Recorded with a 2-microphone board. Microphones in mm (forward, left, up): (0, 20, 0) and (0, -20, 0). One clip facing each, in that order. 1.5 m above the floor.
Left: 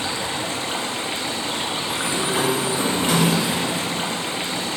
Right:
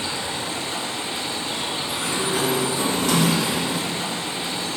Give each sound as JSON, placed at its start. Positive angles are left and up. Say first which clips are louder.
{"t": 0.0, "sound": "running water", "louder": "left 2 dB", "side_deg": 60, "distance_m": 0.8}
{"t": 1.9, "sound": "a sliding door", "louder": "left 1 dB", "side_deg": 25, "distance_m": 1.2}